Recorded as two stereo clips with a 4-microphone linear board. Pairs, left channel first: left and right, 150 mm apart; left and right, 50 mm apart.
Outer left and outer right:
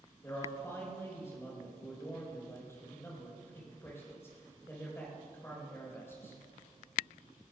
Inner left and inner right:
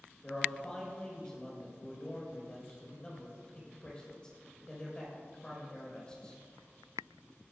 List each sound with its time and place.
0.2 s a man speaking: 20° left (ahead or behind), 4 m